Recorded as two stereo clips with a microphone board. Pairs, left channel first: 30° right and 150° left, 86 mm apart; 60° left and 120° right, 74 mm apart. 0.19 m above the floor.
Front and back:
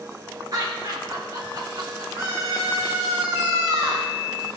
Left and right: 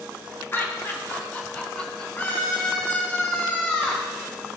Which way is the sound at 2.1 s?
115° left.